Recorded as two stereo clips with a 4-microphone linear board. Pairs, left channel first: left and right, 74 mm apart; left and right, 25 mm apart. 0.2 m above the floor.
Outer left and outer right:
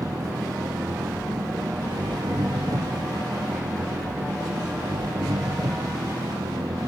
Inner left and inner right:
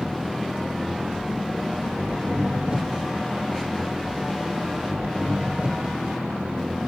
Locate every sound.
0.0 s an engine running: 55° right (ahead or behind)